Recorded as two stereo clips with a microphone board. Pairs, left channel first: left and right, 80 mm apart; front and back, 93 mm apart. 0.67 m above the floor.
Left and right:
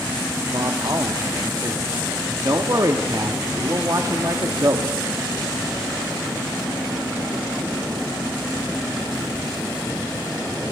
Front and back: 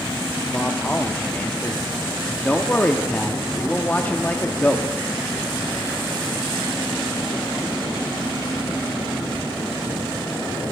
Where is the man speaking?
65° right, 0.8 m.